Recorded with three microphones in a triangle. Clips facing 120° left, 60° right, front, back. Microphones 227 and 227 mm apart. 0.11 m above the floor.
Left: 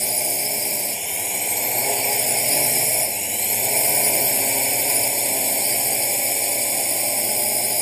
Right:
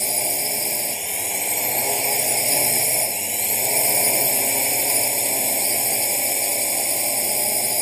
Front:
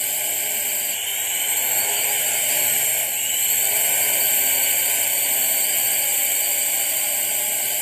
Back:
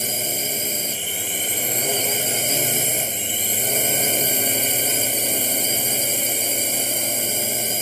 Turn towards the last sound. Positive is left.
turn(degrees=-150)